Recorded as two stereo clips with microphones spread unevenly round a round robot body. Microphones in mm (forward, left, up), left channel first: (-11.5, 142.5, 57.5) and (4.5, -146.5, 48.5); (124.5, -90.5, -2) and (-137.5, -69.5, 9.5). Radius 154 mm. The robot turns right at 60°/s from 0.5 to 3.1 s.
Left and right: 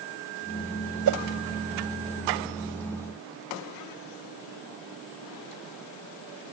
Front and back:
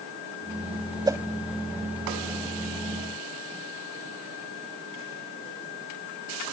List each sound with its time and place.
1.1 s a whoosh: 110° right; by 1.2 s 100° right